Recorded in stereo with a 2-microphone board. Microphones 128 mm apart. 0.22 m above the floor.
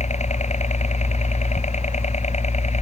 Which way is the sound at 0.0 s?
70° left (ahead or behind).